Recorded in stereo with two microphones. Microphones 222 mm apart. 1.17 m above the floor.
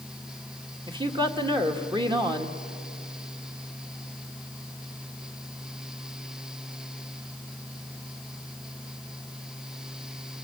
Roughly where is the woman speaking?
Right.